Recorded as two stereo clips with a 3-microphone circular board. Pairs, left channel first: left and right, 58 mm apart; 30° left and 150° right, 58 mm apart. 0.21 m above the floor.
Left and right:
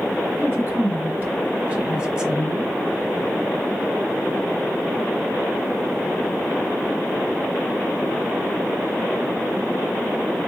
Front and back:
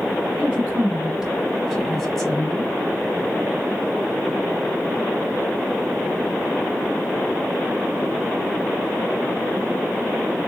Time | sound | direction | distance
0.4 | a woman speaking | 90° right | 1.6 m